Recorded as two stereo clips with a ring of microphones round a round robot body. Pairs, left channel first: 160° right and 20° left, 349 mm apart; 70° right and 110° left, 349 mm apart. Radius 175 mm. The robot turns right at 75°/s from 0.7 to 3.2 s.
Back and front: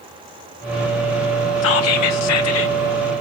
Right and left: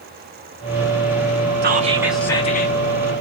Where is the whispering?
165° left, 0.7 m; by 2.8 s 110° right, 0.7 m.